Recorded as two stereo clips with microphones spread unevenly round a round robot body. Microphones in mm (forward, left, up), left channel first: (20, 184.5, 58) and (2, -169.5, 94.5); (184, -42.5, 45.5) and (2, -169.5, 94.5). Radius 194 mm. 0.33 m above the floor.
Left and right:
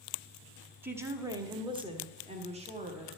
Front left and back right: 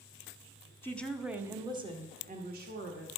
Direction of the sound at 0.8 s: 5° right.